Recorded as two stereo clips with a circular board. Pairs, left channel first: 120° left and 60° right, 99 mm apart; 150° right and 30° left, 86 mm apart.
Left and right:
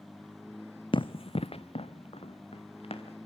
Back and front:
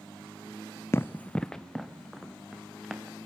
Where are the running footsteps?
150° left, 0.6 m; by 3.2 s 115° left, 3 m.